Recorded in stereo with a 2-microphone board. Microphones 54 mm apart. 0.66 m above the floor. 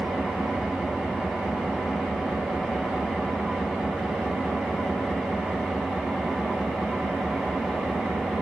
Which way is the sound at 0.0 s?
5° right (ahead or behind).